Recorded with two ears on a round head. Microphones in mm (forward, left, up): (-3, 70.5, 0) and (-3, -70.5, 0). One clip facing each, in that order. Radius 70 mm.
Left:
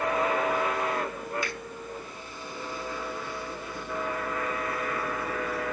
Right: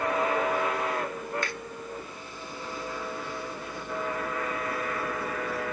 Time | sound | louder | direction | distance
1.4 | a finger snap | even | 10° left (ahead or behind) | 0.6 m